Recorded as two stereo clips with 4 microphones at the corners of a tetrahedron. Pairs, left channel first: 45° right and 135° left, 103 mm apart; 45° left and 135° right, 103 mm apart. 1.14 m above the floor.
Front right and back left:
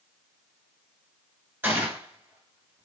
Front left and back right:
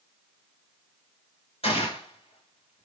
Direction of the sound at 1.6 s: 65° left.